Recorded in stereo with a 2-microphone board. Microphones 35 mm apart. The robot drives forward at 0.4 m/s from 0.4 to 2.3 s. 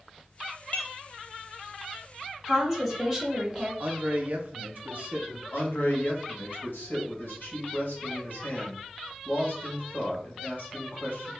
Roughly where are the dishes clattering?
Left.